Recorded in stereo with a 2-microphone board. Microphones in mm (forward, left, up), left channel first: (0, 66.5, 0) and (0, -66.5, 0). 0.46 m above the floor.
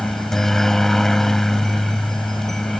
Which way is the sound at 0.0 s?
Centre (ahead or behind).